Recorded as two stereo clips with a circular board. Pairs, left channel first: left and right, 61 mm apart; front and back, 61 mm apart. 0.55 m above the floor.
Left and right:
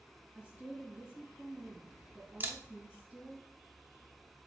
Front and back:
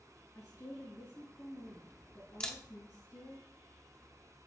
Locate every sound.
0.3 s a woman speaking: 20° right, 3.5 m
2.4 s a camera shutter: 65° right, 0.8 m